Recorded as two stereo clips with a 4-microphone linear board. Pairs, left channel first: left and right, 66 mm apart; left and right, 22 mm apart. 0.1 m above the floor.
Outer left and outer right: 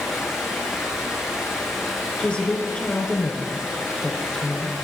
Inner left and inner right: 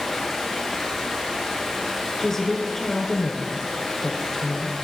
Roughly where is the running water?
Centre.